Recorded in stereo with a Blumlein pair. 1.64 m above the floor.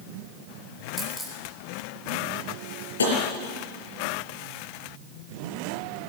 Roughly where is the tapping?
Left.